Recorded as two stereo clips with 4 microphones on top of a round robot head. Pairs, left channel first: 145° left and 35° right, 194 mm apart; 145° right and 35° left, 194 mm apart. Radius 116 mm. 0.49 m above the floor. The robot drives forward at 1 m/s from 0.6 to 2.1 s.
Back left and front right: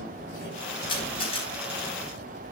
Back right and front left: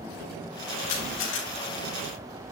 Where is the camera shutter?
155° right, 4.5 m.